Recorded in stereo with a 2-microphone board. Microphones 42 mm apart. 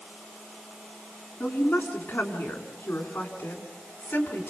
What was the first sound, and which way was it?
A woman speaking, 40° left (ahead or behind).